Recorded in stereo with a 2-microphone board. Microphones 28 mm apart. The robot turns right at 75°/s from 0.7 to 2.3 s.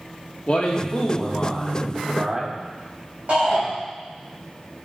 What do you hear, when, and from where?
0.5 s a man speaking: 110° left, 1.7 m; by 2.6 s 130° right, 1.7 m
3.3 s a shout: 50° right (ahead or behind), 4 m